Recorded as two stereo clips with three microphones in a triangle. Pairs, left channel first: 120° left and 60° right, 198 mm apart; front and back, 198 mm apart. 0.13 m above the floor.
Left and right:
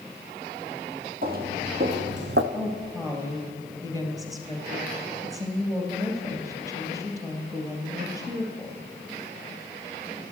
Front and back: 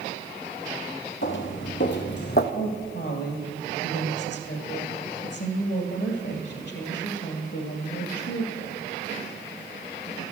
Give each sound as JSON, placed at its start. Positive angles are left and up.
{"t": 1.2, "sound": "footsteps", "azimuth_deg": -20, "distance_m": 1.3}
{"t": 2.5, "sound": "a woman speaking", "azimuth_deg": 10, "distance_m": 2.5}